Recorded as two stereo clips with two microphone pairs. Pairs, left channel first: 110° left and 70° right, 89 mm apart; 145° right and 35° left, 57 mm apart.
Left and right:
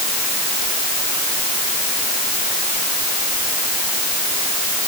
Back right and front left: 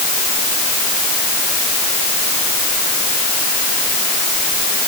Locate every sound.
Only background noise.